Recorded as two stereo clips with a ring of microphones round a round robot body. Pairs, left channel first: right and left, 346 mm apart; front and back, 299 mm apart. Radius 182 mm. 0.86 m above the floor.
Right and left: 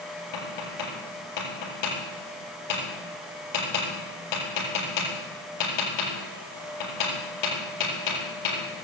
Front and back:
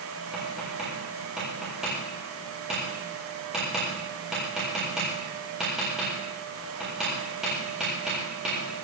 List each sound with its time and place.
0.3 s tapping: 90° right, 8.5 m